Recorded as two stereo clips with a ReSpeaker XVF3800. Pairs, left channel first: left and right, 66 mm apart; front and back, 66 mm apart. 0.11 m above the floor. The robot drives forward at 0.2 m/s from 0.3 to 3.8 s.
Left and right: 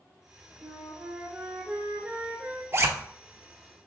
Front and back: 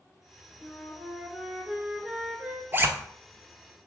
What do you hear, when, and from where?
0.6 s a flute: 70° right, 0.9 m; by 2.6 s 125° right, 0.9 m
2.7 s a zipper: 130° right, 0.6 m